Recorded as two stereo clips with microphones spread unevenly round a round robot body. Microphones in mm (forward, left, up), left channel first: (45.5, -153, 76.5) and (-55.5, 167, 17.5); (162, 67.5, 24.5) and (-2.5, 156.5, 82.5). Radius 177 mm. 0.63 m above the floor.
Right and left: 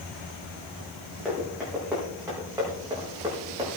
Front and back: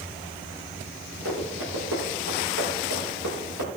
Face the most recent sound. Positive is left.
turn(degrees=-175)